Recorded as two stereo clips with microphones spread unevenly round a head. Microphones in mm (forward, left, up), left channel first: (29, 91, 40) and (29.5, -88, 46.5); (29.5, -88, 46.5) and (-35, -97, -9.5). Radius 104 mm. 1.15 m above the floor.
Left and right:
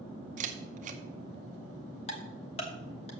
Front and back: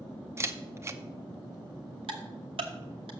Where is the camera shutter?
140° right, 0.8 m.